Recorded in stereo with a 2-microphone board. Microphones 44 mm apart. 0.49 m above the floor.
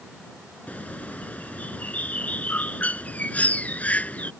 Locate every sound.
0.7 s a bird: 30° left (ahead or behind)